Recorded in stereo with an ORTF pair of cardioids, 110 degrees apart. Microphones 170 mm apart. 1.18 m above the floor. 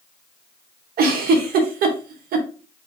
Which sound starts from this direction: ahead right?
A giggle, at 1.0 s.